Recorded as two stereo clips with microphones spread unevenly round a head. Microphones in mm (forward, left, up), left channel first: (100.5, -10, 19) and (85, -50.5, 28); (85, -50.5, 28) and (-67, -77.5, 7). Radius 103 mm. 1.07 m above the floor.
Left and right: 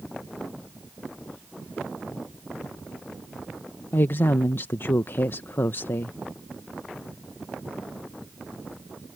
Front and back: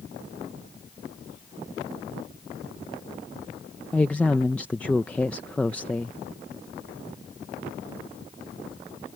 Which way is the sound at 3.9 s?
95° left.